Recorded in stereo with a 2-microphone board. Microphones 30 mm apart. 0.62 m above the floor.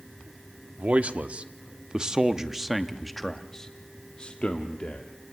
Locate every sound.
0.8 s a man speaking: 45° right (ahead or behind), 1.6 m; by 5.1 s 45° left (ahead or behind), 1.7 m